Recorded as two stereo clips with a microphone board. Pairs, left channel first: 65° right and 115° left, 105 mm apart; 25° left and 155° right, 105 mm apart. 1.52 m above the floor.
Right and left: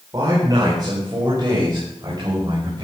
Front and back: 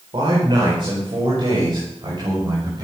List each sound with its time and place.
0.1 s a man speaking: 165° left, 4.5 m; by 2.9 s 160° left, 7 m